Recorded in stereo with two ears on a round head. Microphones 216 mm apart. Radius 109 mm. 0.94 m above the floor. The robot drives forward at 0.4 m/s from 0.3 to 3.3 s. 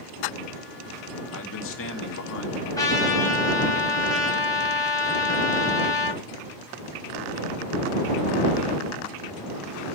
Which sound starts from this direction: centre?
A trumpet, at 2.8 s.